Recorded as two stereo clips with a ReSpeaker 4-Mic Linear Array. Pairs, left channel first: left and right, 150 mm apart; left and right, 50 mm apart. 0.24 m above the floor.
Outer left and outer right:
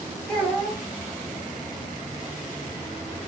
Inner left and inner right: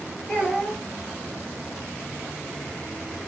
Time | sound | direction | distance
0.3 | a child speaking | 5° left (ahead or behind) | 1.5 m